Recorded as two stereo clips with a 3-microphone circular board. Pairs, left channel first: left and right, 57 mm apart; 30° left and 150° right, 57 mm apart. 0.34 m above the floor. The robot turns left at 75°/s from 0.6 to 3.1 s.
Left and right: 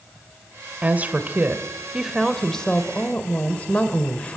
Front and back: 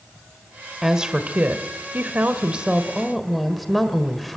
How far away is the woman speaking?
About 1.5 m.